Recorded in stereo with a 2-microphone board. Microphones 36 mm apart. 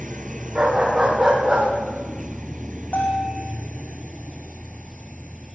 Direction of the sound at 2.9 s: 50° left (ahead or behind).